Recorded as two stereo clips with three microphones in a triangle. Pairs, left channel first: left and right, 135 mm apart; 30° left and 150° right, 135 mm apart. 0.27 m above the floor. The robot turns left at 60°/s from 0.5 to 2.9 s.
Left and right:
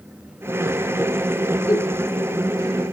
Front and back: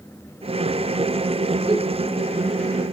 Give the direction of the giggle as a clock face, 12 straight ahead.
7 o'clock.